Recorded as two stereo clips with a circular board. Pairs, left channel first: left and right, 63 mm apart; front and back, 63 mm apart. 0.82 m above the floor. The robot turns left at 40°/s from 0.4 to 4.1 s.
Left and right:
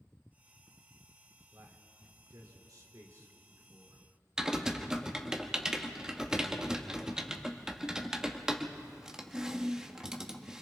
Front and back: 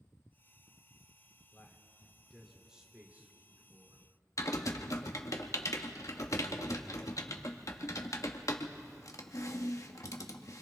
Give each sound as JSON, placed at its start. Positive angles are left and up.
{"t": 1.5, "sound": "a man speaking", "azimuth_deg": -50, "distance_m": 3.0}
{"t": 4.4, "sound": "typing on a keyboard", "azimuth_deg": -10, "distance_m": 1.2}